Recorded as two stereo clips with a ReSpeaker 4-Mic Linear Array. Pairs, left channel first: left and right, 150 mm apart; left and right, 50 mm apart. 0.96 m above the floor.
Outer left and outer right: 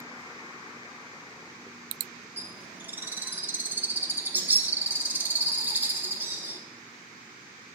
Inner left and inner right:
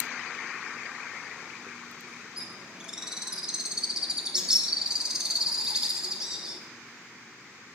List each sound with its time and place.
2.4 s a bird: 10° right (ahead or behind), 0.8 m